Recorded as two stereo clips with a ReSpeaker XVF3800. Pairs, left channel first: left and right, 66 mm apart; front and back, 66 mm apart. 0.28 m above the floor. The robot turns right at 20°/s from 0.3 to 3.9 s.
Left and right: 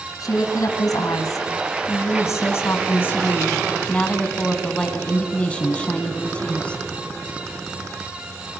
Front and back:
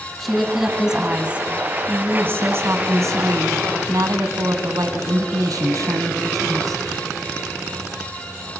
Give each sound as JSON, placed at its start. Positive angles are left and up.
{"t": 0.2, "sound": "a woman speaking", "azimuth_deg": 90, "distance_m": 2.5}